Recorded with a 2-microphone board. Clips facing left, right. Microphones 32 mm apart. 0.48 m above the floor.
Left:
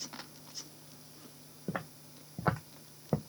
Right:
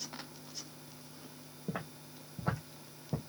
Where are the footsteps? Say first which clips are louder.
Left 2 dB; 15° left (ahead or behind), 0.9 m; by 3.2 s 55° left (ahead or behind), 0.8 m.